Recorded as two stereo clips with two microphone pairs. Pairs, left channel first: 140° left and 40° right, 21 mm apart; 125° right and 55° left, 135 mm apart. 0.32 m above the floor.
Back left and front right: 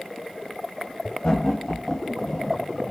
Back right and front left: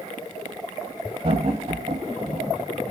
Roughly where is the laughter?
Left.